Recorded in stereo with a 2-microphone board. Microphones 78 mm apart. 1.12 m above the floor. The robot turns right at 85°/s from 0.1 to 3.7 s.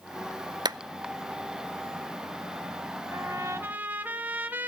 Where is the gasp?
I don't hear a gasp.